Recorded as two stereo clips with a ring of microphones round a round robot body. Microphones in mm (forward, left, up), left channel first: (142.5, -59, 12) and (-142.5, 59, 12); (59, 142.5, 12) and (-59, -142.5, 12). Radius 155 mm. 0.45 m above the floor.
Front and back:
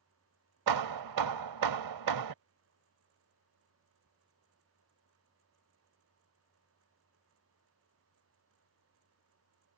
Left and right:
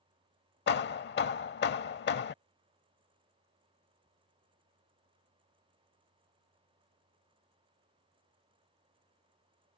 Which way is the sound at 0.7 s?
125° left.